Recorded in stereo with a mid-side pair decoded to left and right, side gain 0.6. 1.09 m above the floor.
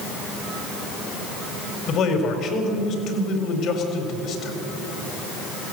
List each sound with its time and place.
1.9 s a man speaking: 55° left, 4.5 m